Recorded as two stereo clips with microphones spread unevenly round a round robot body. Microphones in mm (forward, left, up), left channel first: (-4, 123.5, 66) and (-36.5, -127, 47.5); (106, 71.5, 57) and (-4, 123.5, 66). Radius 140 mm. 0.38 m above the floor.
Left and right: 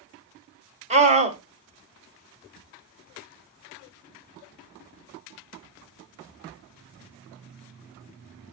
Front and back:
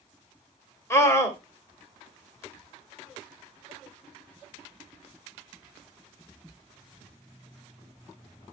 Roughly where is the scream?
Right.